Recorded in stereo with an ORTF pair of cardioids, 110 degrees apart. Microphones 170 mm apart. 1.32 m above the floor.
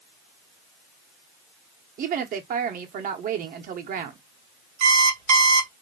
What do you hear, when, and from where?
2.0 s a woman speaking: 60° right, 1.1 m
4.8 s an alarm clock: 50° right, 1.4 m